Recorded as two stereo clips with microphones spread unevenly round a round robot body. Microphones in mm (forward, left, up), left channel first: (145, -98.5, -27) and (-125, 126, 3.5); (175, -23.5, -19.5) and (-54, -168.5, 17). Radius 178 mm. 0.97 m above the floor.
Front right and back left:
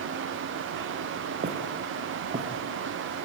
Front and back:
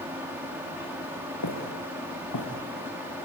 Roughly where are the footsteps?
Left.